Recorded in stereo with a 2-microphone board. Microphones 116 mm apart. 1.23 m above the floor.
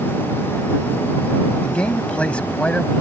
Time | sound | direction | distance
1.6 | a man speaking | 10° left (ahead or behind) | ?